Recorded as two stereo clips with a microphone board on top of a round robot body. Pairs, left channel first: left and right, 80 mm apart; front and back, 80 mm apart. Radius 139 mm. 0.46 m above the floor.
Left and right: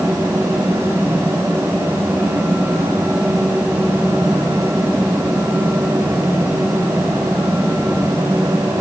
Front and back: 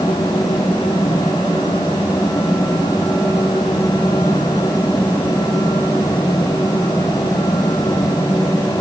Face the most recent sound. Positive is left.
No sound to turn to.